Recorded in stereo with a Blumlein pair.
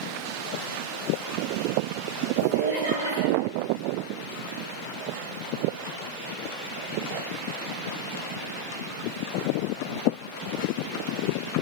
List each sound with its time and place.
2.4 s laughter: 65° right, 2 m